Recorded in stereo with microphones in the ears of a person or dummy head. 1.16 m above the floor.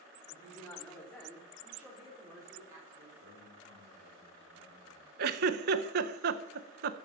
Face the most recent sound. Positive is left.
turn(degrees=-50)  # may be behind; listen again after turning